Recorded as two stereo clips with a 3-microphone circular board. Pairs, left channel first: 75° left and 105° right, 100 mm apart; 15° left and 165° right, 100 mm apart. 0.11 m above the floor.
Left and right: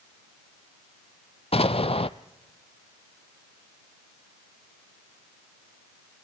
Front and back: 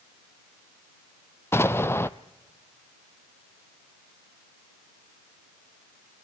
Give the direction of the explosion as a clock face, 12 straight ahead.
9 o'clock.